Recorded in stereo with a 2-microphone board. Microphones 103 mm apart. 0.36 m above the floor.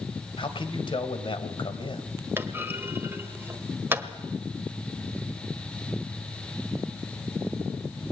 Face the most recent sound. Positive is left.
turn(degrees=-20)  # may be behind; listen again after turning